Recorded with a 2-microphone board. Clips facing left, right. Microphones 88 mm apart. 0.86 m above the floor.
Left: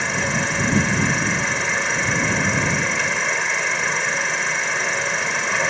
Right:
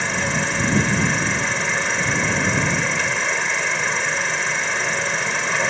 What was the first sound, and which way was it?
An insect, centre (ahead or behind).